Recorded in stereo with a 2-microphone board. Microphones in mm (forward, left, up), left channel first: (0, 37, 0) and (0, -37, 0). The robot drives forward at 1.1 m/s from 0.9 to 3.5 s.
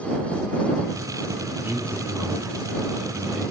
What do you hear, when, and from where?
1.6 s a man speaking: 20° right (ahead or behind), 1.1 m; by 3.5 s 10° right (ahead or behind), 2 m